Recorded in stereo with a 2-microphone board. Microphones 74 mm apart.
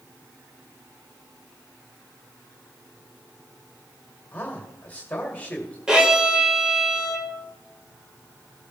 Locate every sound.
4.3 s a man speaking: 20° left (ahead or behind), 1.9 m
5.9 s a violin: 10° right (ahead or behind), 1.8 m